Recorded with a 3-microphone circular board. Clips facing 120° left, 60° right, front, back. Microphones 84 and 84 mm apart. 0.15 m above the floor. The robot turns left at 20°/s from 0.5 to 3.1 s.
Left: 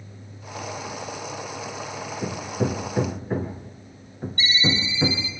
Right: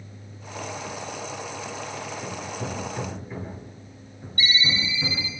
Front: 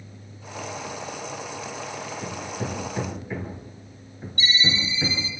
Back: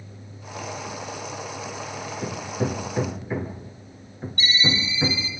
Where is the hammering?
120° left, 1.9 m; by 5.4 s 105° left, 1.9 m.